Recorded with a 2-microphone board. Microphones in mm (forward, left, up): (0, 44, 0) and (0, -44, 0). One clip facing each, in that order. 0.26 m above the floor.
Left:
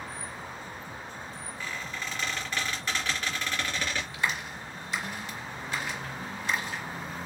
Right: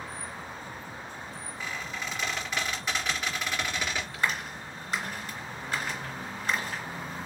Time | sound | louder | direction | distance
1.6 | a squeak | right 1 dB | 15° right (ahead or behind) | 2.5 m
4.1 | a clap | right 1 dB | 45° right (ahead or behind) | 3 m